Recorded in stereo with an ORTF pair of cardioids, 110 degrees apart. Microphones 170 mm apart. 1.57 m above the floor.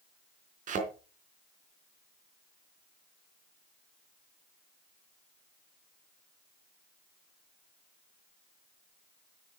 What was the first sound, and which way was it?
A thud, 55° right.